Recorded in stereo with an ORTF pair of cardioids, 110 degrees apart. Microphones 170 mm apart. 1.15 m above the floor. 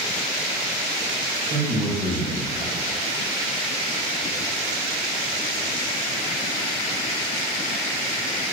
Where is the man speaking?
55° right, 1.6 m.